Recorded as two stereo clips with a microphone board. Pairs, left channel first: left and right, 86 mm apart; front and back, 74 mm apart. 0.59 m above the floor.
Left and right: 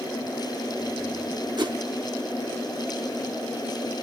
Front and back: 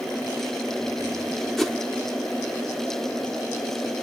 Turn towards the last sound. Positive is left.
turn(degrees=-85)